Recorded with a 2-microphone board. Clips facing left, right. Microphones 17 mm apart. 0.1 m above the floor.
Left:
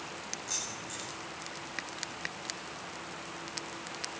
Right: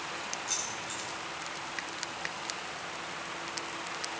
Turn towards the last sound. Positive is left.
turn(degrees=-15)  # may be behind; listen again after turning